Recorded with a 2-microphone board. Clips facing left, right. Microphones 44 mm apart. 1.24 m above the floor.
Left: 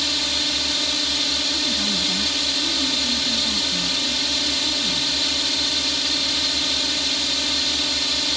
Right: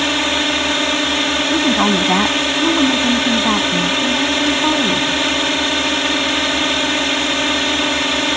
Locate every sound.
0.0 s a drone: 45° right (ahead or behind)
1.5 s a woman speaking: 75° right (ahead or behind)